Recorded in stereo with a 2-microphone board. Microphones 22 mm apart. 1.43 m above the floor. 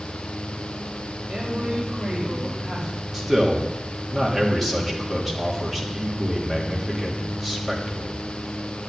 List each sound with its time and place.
1.3 s a man speaking: 20° right (ahead or behind), 5 m; by 3.0 s 5° right (ahead or behind), 5 m
3.1 s a man speaking: centre (ahead or behind), 3.5 m